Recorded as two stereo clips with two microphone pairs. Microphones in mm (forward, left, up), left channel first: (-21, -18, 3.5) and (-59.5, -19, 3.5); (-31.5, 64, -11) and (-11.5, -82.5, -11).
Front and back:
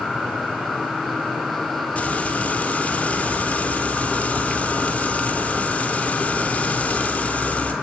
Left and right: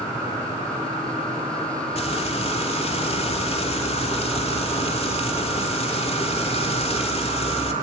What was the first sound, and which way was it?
Frying, 55° left.